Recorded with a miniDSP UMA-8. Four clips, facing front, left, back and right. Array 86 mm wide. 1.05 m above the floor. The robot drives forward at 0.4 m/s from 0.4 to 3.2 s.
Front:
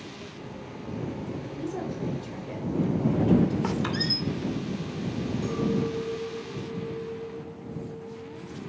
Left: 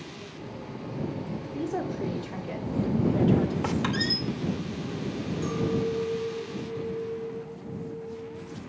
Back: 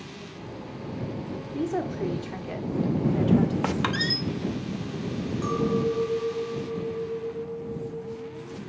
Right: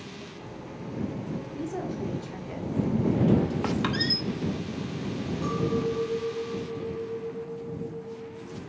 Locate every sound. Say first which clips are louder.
1.5 s a woman speaking: left 4 dB, back 6 dB; 165° left, 2.5 m
3.6 s a squeak: even, back 2 dB; 170° right, 1.0 m
5.4 s a clink: even, back 4 dB; 170° right, 4 m